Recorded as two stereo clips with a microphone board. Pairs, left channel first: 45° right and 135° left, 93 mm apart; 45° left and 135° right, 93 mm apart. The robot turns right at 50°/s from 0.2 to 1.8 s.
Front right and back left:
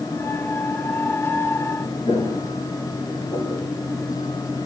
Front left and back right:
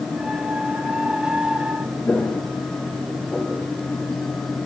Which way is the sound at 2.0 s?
25° right.